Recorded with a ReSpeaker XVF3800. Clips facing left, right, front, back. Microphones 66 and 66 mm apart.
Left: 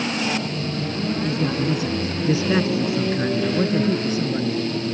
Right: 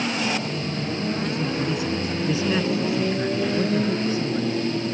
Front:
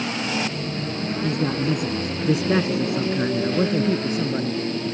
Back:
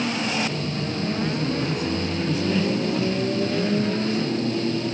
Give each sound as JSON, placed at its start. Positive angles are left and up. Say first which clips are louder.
{"t": 1.2, "sound": "a man speaking", "louder": "left 3 dB, front 2 dB", "azimuth_deg": 25}